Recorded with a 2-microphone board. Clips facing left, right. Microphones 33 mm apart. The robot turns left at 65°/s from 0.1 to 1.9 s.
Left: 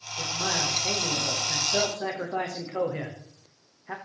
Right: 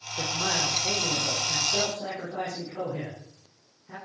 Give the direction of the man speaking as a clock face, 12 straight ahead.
5 o'clock.